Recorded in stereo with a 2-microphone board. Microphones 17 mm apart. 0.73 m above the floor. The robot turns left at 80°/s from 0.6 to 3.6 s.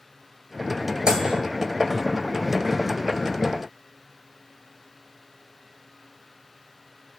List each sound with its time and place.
1.1 s a microwave: 70° right (ahead or behind), 4 m; by 1.4 s 80° right, 4 m